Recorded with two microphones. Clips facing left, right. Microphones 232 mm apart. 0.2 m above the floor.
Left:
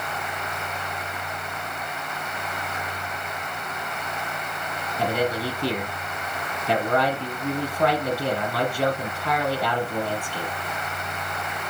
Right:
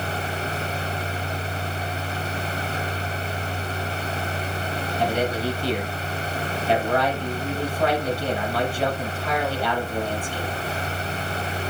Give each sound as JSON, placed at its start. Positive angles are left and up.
{"t": 5.0, "sound": "a man speaking", "side_deg": 60, "distance_m": 5.0}